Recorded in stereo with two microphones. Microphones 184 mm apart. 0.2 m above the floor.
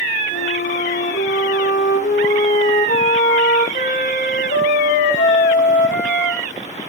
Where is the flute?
75° left (ahead or behind), 5 m.